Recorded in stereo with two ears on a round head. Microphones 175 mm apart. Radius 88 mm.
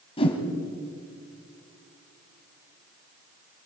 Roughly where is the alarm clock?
I don't hear an alarm clock.